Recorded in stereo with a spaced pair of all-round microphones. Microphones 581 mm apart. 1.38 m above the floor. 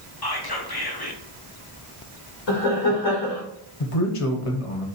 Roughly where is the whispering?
Left.